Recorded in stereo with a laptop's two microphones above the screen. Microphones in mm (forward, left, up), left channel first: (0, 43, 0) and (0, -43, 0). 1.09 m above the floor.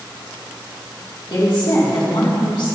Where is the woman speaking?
65° left (ahead or behind), 3 m.